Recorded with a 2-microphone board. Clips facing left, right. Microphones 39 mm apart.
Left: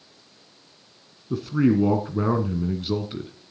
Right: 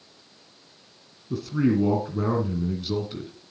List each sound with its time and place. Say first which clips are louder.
1.3 s a man speaking: left 2 dB; 25° left (ahead or behind), 1.5 m